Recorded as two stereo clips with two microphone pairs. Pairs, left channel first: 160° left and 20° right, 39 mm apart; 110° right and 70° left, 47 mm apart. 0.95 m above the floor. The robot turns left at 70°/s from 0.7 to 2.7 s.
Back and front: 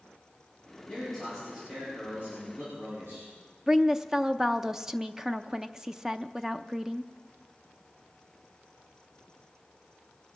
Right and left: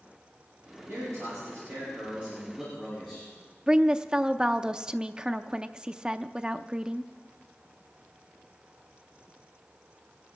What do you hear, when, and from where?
0.9 s a man speaking: 100° left, 9 m; by 3.3 s 30° right, 9 m
3.7 s a woman speaking: 35° left, 0.5 m